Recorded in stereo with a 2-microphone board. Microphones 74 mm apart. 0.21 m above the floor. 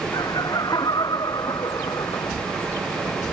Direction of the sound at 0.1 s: 60° left (ahead or behind).